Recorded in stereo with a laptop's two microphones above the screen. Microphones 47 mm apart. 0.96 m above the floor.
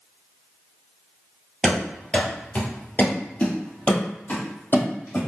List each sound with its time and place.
1.6 s running footsteps: 15° left (ahead or behind), 1.1 m; by 5.2 s 45° left (ahead or behind), 2 m